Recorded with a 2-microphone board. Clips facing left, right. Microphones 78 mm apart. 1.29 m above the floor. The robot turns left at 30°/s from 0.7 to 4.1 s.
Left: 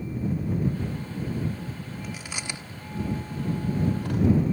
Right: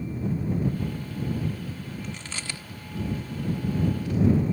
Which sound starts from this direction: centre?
Chewing, at 2.0 s.